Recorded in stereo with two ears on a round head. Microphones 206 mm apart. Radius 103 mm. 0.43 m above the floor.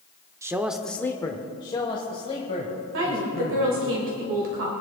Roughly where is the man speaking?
Centre.